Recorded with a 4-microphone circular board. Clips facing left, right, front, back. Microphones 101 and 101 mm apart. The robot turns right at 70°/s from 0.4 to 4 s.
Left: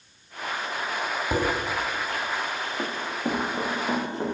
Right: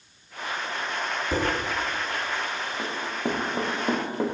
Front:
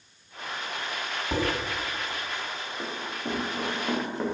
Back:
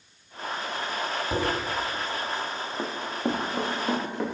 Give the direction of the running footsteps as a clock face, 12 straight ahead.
6 o'clock.